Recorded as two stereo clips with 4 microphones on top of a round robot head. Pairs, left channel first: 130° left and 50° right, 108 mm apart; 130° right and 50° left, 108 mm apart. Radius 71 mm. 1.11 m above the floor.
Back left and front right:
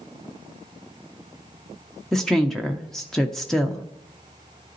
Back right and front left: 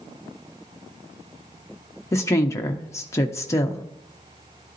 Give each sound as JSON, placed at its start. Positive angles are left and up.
{"t": 2.1, "sound": "a woman speaking", "azimuth_deg": -150, "distance_m": 0.6}